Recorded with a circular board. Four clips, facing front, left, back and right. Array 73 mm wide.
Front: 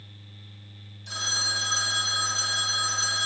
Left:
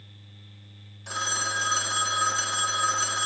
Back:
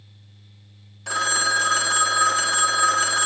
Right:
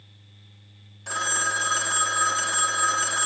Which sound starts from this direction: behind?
A phone ringing, at 1.1 s.